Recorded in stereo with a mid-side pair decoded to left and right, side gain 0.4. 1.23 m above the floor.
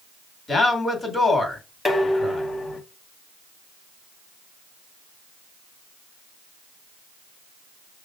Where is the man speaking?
40° left, 2 m.